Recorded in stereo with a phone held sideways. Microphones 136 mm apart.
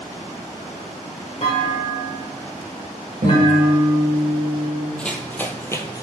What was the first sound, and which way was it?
A clunk, 45° left (ahead or behind).